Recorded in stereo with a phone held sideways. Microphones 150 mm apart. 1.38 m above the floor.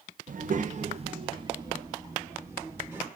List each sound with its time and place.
0.3 s a child speaking: 60° right (ahead or behind), 0.6 m; by 3.1 s 15° right (ahead or behind), 2.5 m